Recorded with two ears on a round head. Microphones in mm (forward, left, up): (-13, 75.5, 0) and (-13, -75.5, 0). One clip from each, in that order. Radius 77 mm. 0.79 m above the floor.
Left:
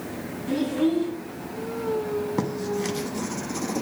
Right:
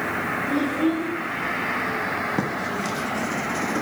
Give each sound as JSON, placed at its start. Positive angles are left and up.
{"t": 0.5, "sound": "a child speaking", "side_deg": 10, "distance_m": 3.0}
{"t": 2.4, "sound": "writing", "side_deg": 20, "distance_m": 1.2}